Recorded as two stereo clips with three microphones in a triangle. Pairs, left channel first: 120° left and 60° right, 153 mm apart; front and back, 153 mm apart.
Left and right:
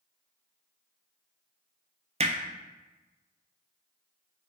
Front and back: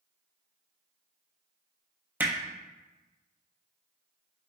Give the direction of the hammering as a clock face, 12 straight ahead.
3 o'clock.